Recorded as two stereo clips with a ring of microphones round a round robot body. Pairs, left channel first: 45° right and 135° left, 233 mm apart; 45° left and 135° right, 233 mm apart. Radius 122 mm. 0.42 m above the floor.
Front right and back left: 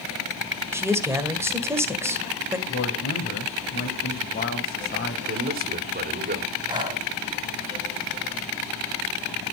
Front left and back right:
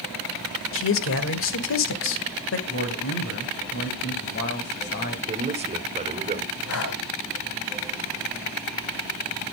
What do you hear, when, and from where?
0.7 s a man speaking: 55° left, 1.7 m
2.7 s a man speaking: 5° left, 2.5 m
5.3 s a man speaking: 170° left, 1.7 m
6.7 s breathing: 65° left, 3 m